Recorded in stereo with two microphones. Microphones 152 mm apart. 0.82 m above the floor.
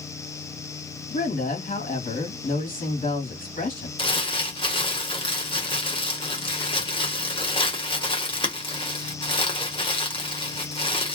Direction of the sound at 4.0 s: 35° left (ahead or behind).